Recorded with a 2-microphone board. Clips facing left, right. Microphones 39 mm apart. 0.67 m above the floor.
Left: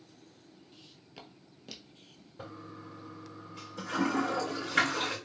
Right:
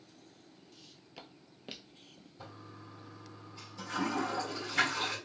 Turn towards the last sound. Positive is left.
turn(degrees=75)  # may be behind; listen again after turning